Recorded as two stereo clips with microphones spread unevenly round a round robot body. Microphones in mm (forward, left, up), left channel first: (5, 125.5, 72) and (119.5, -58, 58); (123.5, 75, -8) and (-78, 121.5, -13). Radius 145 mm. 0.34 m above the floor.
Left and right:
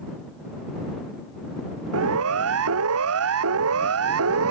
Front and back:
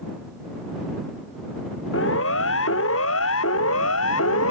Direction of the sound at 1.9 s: 65° right.